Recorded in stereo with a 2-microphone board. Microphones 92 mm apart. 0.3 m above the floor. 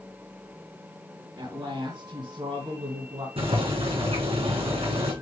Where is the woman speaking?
45° right (ahead or behind), 3 m; by 3.3 s 60° right (ahead or behind), 2.5 m.